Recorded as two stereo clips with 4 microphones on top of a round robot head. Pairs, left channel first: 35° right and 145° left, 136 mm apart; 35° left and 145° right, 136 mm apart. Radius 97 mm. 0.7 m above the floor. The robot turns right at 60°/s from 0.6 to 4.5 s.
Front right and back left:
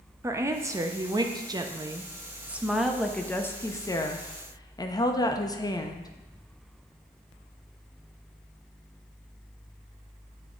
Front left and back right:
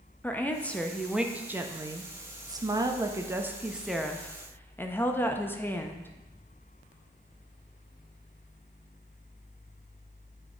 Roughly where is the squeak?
I don't hear a squeak.